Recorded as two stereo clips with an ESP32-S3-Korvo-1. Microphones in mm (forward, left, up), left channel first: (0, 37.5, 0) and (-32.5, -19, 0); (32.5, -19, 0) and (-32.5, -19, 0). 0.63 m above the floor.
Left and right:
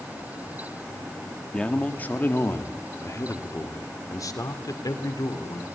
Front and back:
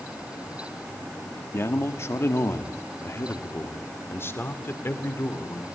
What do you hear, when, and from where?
1.5 s a man speaking: 5° right, 1.4 m; by 5.7 s 55° left, 2.5 m